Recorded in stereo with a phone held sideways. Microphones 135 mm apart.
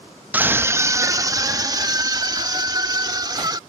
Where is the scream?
10° right (ahead or behind); by 3.6 s 30° right (ahead or behind).